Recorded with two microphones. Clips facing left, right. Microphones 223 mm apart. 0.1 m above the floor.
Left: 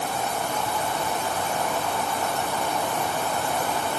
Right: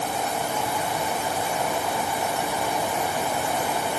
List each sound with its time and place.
Only background noise.